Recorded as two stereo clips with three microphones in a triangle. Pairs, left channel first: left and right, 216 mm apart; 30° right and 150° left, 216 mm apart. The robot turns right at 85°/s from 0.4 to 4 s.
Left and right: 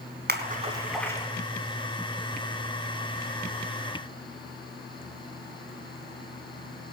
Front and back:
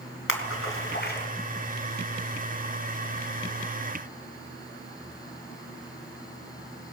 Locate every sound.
0.3 s a splash: 45° right, 3 m; by 1.3 s 25° left, 3 m